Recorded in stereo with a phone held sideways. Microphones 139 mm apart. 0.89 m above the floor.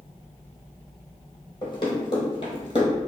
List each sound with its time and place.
1.6 s running footsteps: 35° left (ahead or behind), 1.4 m